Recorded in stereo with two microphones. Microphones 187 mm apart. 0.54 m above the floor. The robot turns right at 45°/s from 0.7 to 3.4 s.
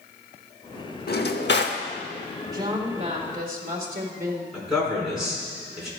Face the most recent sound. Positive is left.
turn(degrees=-5)  # may be behind; listen again after turning